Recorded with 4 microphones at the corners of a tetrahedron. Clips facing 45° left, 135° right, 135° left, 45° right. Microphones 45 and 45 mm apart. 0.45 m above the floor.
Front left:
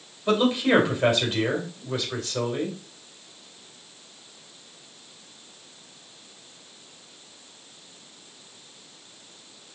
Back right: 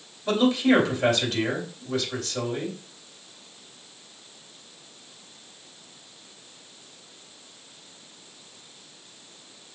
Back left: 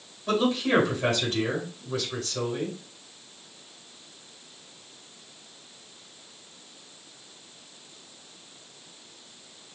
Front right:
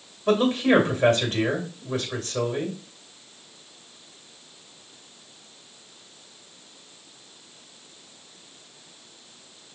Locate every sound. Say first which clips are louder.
0.3 s a man speaking: even, front right 4 dB; 20° right, 2 m